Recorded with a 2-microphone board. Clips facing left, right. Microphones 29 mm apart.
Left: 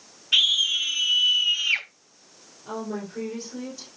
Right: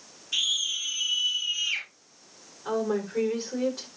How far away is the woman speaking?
About 5.5 m.